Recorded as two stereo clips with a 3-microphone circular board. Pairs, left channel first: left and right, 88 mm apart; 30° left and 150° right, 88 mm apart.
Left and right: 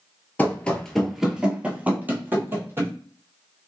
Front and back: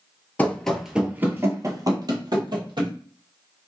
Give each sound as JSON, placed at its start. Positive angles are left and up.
{"t": 0.4, "sound": "running footsteps", "azimuth_deg": 60, "distance_m": 0.7}